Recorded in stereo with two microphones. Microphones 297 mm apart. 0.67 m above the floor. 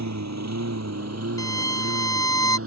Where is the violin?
10° left (ahead or behind).